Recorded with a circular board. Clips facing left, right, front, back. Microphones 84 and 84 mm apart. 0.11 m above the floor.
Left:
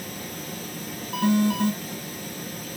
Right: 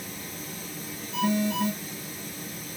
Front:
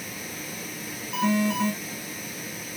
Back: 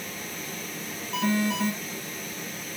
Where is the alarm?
85° left, 3.5 m.